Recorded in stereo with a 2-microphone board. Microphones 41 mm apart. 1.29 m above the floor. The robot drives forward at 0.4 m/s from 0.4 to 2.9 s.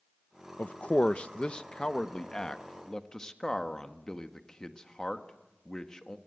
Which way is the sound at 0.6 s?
40° left (ahead or behind).